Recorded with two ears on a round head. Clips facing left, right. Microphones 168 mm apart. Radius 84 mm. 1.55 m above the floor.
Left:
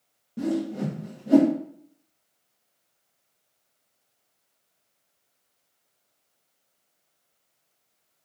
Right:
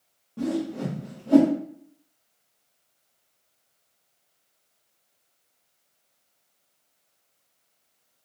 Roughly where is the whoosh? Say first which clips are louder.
Left 1 dB; left.